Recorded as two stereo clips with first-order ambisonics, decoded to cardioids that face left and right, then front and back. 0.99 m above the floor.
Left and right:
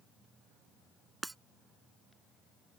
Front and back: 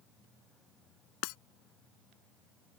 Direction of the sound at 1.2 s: 5° right.